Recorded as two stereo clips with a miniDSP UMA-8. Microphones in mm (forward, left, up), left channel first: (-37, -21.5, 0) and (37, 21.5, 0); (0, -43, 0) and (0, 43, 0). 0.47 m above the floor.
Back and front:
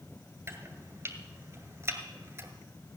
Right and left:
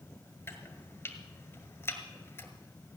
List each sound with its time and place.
0.5 s chopping: 30° right, 1.6 m